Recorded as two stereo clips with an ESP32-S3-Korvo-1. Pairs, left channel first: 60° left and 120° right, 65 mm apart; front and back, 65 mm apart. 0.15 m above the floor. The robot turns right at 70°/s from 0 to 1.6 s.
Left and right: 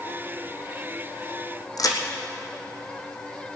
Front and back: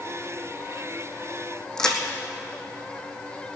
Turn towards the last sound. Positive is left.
turn(degrees=80)